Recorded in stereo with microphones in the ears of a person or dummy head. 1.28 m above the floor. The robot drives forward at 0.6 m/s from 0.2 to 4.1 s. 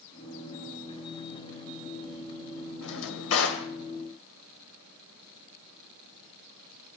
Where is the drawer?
70° left (ahead or behind), 2.5 m; by 3.7 s 65° left (ahead or behind), 2.5 m.